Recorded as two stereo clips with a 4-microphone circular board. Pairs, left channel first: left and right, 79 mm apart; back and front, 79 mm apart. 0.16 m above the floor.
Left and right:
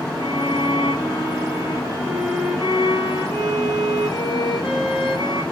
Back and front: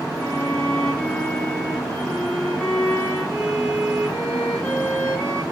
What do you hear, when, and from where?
0.1 s a violin: 115° left, 4 m